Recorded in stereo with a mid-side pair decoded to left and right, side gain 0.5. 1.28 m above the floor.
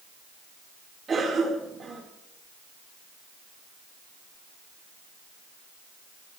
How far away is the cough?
About 5 m.